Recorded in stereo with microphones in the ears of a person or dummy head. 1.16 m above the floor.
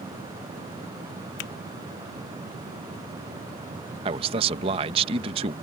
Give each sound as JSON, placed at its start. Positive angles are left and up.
{"t": 1.4, "sound": "a finger snap", "side_deg": 50}
{"t": 4.0, "sound": "a man speaking", "side_deg": -30}